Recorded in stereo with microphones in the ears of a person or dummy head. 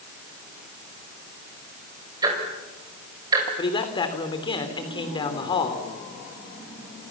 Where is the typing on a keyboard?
No typing on a keyboard in this recording.